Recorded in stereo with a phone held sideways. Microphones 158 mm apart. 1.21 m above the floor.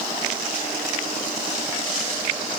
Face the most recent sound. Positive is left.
No sound to turn to.